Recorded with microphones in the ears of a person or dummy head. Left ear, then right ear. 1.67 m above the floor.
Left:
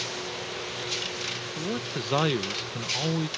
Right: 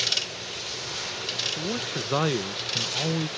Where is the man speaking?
10° left (ahead or behind).